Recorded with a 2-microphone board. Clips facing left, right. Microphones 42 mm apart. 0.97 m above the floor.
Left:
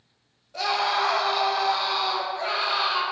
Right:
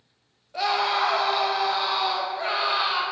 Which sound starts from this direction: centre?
A scream, at 0.5 s.